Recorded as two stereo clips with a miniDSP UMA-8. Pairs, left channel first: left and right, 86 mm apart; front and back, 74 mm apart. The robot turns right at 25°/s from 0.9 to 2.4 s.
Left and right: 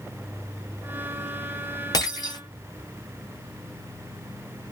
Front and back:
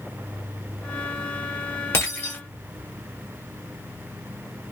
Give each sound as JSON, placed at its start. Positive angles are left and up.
{"t": 1.9, "sound": "breaking glass", "azimuth_deg": 55, "distance_m": 1.8}